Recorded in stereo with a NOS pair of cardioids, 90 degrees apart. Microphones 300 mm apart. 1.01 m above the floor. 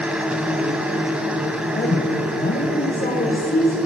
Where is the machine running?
5° right, 2.5 m.